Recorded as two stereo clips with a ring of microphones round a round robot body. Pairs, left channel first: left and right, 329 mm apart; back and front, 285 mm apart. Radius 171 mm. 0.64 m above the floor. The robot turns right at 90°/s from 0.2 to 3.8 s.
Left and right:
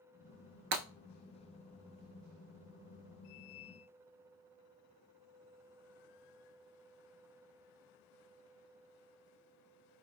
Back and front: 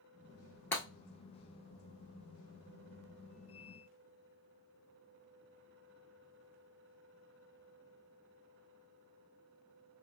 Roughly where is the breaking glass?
Right.